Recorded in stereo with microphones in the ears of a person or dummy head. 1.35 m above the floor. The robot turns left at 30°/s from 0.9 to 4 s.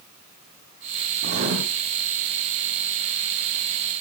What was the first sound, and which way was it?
Writing, 55° right (ahead or behind).